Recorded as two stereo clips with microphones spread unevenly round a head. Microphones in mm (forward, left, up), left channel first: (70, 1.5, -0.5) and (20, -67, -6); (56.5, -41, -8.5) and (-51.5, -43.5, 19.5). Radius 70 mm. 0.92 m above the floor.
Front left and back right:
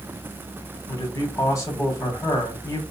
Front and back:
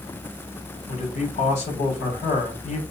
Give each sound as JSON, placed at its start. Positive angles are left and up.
{"t": 0.9, "sound": "a man speaking", "azimuth_deg": 0, "distance_m": 3.0}